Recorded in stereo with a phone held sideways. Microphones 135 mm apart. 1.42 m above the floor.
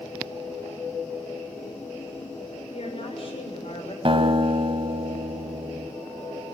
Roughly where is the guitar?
Right.